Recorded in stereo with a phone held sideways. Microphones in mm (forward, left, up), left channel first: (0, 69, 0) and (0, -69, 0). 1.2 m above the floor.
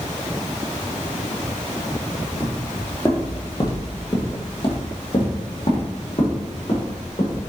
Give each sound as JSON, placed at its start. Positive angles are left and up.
{"t": 2.4, "sound": "footsteps", "side_deg": 10, "distance_m": 1.3}